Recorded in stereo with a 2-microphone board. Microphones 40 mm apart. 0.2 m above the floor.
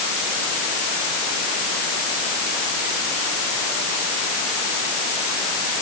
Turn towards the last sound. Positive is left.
No sound to turn to.